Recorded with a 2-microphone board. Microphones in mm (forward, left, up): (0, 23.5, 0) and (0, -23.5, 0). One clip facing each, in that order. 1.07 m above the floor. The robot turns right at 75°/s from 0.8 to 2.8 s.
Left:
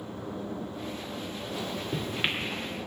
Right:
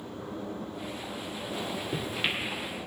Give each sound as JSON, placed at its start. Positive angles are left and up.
{"t": 1.5, "sound": "a microwave", "side_deg": -35, "distance_m": 2.0}